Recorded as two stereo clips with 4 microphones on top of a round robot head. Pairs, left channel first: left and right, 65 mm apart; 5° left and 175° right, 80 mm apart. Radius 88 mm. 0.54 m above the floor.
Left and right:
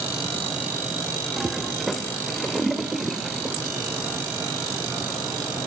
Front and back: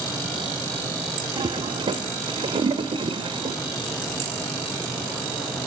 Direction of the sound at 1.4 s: Straight behind.